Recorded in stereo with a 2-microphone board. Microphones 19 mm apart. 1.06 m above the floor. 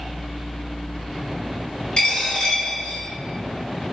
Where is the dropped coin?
45° left (ahead or behind), 1.0 m.